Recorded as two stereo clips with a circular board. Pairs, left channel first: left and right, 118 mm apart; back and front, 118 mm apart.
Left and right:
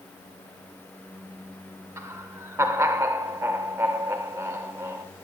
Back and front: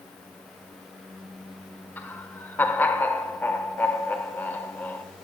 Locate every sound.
2.0 s laughter: 125° right, 1.0 m